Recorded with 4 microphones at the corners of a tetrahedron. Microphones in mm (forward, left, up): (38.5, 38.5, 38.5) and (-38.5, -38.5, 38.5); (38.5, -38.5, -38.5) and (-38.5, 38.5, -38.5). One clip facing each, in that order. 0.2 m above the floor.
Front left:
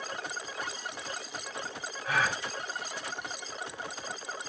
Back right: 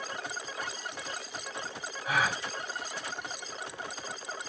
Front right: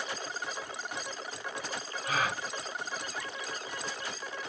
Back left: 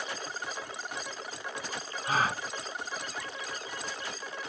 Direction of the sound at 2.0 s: 155° left.